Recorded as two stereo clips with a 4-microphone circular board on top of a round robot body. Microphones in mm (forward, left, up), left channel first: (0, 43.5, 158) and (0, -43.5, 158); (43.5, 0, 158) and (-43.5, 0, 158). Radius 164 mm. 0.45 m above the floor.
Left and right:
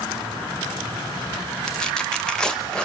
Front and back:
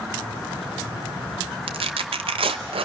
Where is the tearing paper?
170° left, 0.9 m.